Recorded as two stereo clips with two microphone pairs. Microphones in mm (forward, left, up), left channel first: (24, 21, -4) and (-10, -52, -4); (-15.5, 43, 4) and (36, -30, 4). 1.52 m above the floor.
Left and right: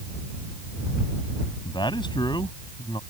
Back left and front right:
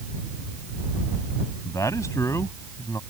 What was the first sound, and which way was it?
A man speaking, 70° left.